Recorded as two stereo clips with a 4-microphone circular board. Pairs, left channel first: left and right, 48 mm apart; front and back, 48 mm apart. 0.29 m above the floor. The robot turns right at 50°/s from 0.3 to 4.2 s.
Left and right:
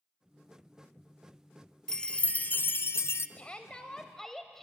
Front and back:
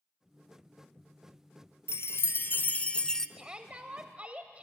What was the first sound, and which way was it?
A chime, 15° left.